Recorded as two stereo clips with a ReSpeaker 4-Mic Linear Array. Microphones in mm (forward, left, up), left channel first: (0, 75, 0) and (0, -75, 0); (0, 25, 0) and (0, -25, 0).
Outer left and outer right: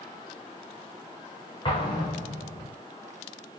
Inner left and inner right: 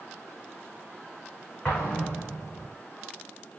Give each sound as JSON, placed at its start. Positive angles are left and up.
{"t": 1.6, "sound": "an explosion", "side_deg": 30, "distance_m": 4.0}